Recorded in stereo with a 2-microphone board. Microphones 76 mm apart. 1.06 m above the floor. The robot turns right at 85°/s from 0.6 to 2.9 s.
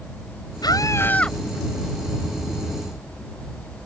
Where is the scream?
115° left; by 1.4 s straight behind.